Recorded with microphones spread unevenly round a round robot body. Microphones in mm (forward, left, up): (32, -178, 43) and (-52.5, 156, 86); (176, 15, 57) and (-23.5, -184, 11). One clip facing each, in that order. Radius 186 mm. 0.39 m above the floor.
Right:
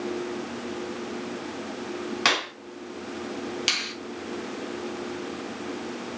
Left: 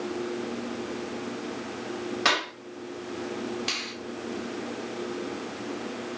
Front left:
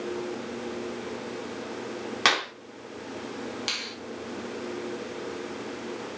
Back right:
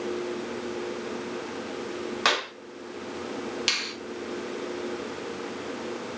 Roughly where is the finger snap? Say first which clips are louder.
Even, back right 2 dB; right.